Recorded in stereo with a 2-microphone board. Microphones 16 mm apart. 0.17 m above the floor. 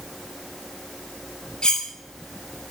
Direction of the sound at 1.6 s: 70° left (ahead or behind).